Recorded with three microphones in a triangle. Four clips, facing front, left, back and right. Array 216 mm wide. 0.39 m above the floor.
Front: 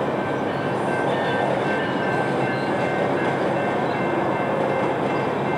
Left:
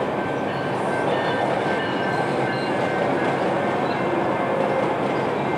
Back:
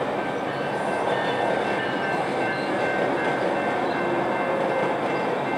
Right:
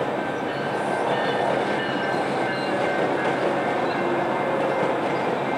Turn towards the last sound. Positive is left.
No sound to turn to.